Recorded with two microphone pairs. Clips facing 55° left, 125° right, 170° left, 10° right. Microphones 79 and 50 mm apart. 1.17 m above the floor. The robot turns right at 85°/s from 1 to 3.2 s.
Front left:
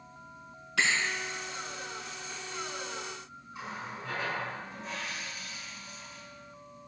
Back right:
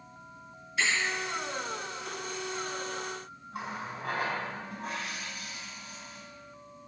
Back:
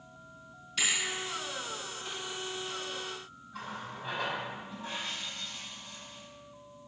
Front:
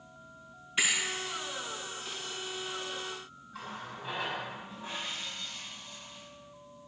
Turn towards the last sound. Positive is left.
turn(degrees=-100)